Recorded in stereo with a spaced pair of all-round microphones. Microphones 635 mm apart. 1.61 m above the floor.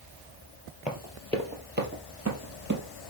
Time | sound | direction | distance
0.9 | running footsteps | centre (ahead or behind) | 2.5 m